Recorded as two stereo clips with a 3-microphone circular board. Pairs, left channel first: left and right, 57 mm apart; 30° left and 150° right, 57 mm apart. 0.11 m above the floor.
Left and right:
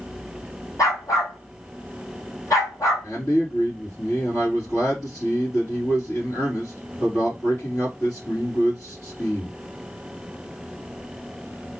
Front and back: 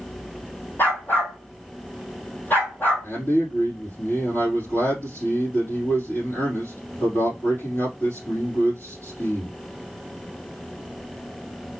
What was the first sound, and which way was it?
A dog barking, 85° left.